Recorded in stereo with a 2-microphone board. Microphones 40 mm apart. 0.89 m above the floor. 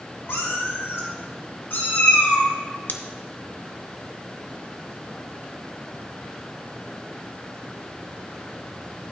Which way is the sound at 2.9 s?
50° left (ahead or behind).